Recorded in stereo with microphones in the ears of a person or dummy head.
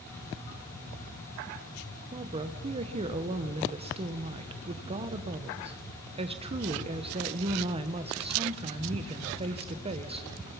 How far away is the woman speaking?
About 1.2 m.